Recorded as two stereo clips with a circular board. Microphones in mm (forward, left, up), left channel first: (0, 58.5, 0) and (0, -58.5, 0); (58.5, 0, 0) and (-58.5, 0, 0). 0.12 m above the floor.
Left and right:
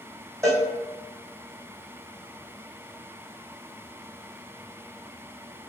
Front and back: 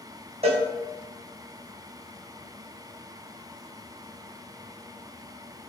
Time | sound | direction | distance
0.4 | a cowbell | 155° right | 1.5 m